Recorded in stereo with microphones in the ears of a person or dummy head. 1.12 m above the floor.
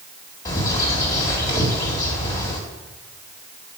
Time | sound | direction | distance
0.5 | a bird | 20° left (ahead or behind) | 1.7 m